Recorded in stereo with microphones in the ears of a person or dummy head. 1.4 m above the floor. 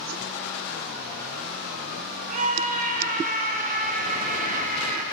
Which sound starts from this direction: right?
A scream, at 2.3 s.